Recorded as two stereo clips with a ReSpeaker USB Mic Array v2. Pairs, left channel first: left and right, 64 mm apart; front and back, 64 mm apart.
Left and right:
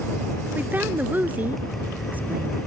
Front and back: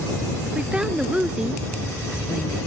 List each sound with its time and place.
0.6 s a woman speaking: 120° right